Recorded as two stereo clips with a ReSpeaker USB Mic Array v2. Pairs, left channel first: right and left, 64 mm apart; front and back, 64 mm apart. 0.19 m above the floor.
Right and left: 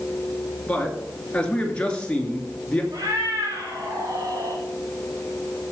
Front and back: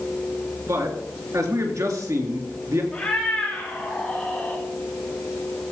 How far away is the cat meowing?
About 5.5 m.